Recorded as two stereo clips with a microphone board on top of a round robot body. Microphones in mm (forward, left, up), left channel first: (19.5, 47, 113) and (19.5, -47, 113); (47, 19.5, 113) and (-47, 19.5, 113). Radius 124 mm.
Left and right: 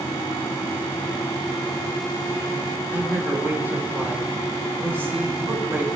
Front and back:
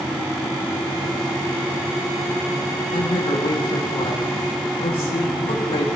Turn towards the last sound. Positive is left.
turn(degrees=-25)